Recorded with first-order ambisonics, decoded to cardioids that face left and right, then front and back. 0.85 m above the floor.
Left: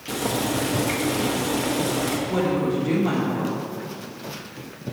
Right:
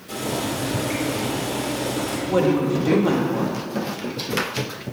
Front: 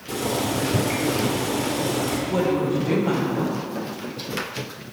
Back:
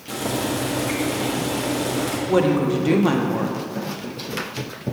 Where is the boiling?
115° left, 1.3 m.